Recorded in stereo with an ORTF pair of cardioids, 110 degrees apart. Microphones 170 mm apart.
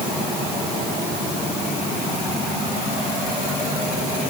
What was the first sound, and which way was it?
Only background noise.